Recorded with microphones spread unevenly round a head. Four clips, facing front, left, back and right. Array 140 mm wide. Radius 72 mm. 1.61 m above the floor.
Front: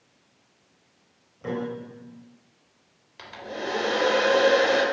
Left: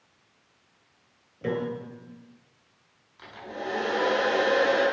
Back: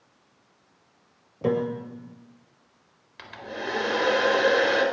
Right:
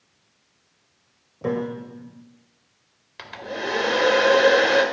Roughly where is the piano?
Behind.